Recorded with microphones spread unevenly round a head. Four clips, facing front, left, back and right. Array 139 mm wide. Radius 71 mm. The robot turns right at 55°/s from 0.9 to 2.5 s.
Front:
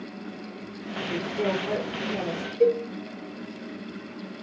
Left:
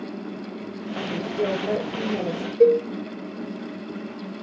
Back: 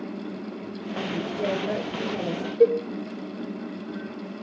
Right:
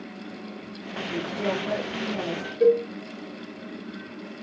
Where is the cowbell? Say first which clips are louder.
Left 3 dB, back 2 dB; 115° left, 1.2 m.